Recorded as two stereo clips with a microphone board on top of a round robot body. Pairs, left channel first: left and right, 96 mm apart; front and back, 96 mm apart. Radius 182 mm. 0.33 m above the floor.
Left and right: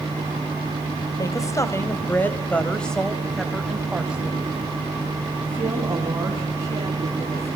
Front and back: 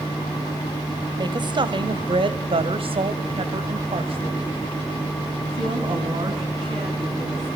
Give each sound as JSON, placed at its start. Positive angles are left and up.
{"t": 1.2, "sound": "a woman speaking", "azimuth_deg": 140, "distance_m": 2.5}